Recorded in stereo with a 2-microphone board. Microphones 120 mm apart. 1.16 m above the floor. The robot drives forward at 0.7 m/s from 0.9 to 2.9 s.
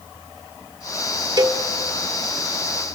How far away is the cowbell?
About 1.0 m.